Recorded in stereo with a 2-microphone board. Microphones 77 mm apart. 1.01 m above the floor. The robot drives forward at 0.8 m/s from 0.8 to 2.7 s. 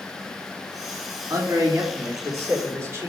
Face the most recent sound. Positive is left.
turn(degrees=-30)  # may be behind; listen again after turning